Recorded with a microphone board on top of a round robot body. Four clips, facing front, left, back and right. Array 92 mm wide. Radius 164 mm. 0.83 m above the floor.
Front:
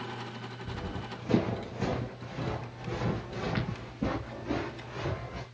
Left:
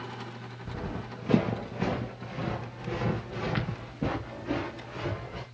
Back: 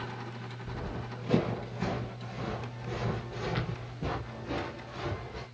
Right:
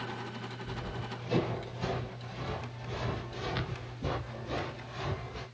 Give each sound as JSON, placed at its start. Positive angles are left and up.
{"t": 0.7, "sound": "running footsteps", "azimuth_deg": 75, "distance_m": 3.5}